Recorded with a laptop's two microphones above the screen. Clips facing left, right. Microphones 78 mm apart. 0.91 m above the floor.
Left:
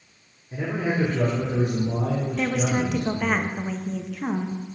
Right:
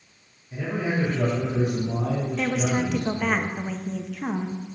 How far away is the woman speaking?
About 0.8 m.